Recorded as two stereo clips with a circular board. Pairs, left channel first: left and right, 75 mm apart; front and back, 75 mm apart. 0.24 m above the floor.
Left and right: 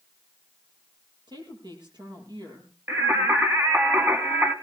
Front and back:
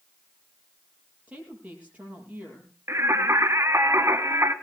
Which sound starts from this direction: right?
A woman speaking, at 1.3 s.